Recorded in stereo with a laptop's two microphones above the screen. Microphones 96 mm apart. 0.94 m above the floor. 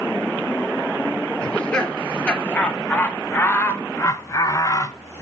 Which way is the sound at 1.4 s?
10° left (ahead or behind).